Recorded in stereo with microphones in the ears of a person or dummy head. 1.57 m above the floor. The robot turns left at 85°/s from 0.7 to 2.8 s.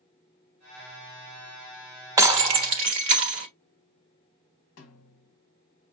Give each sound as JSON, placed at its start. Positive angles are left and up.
{"t": 2.2, "sound": "breaking glass", "azimuth_deg": -30, "distance_m": 1.1}
{"t": 4.8, "sound": "a snare drum", "side_deg": 40, "distance_m": 1.1}